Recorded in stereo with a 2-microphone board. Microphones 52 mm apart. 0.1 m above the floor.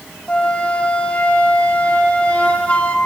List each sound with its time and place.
0.3 s a flute: 20° left (ahead or behind), 1.3 m